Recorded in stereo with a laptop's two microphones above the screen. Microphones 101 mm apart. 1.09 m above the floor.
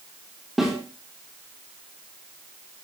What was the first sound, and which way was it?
A snare drum, 5° right (ahead or behind).